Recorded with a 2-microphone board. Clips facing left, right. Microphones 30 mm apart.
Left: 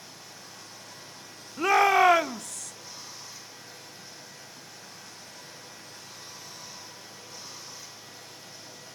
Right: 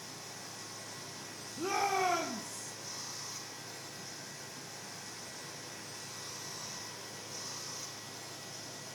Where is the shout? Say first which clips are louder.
Left 12 dB; 80° left, 0.8 m.